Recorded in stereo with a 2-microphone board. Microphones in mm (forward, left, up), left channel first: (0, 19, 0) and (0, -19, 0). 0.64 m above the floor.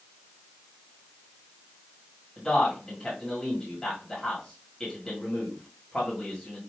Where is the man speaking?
15° left (ahead or behind), 1.5 m.